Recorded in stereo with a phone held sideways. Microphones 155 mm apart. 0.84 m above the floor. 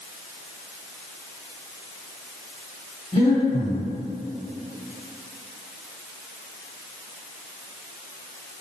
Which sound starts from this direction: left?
Breathing, at 3.1 s.